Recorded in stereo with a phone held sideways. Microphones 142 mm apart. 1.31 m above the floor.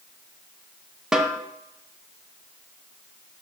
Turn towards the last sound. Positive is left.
turn(degrees=-5)  # may be behind; listen again after turning